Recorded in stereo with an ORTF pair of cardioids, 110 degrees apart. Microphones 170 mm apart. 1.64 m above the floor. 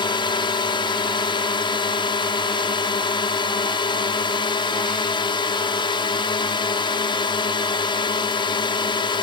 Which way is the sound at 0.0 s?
30° left.